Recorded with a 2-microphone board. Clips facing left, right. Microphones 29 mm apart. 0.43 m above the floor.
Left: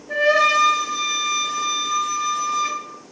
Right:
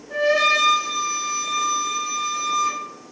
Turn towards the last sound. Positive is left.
turn(degrees=80)